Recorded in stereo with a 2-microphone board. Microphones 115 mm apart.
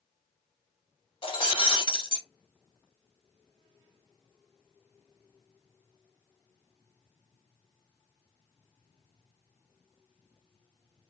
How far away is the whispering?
I don't hear whispering.